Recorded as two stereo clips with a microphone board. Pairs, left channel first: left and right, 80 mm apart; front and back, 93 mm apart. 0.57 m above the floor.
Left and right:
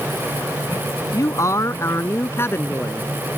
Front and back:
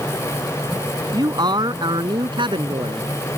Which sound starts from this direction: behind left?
A man speaking, at 1.1 s.